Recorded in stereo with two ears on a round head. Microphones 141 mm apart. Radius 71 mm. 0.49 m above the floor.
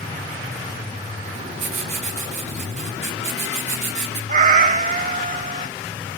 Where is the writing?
45° right (ahead or behind), 3.5 m.